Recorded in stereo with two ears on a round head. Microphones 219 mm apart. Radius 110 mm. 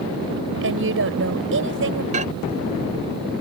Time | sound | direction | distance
0.6 | a woman speaking | 55° right (ahead or behind) | ?
2.1 | a microwave | 30° right (ahead or behind) | ?